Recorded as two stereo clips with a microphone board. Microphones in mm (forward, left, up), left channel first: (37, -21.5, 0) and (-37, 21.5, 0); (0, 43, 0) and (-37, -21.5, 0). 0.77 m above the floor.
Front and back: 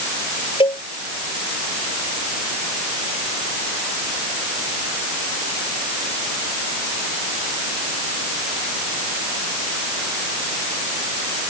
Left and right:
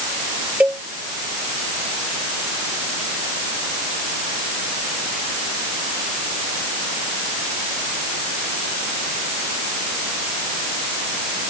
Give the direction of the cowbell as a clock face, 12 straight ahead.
2 o'clock.